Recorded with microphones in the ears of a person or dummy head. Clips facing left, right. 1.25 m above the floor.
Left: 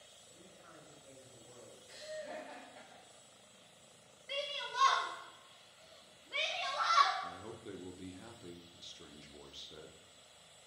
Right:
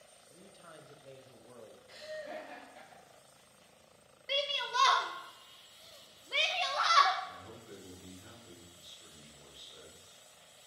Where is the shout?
65° right (ahead or behind), 0.8 m.